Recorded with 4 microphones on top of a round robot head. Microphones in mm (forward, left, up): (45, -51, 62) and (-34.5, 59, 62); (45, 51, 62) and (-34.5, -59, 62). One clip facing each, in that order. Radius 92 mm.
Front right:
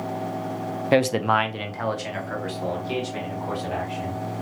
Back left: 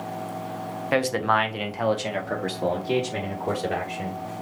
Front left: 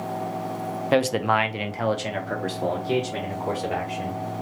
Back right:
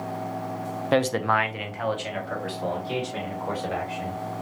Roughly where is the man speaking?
Ahead right.